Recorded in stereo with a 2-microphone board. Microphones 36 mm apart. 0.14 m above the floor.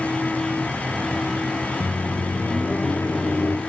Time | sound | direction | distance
1.8 | a microwave | 65° left (ahead or behind) | 3 m